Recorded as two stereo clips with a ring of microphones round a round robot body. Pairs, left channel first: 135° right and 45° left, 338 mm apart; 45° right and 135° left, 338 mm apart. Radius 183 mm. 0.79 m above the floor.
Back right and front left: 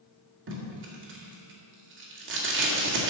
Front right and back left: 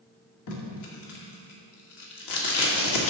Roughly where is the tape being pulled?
Ahead.